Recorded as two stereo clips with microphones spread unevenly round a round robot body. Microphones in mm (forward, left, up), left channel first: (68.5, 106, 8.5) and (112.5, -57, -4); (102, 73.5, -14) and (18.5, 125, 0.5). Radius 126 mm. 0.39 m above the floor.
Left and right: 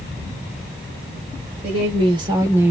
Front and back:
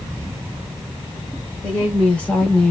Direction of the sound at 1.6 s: 105° right.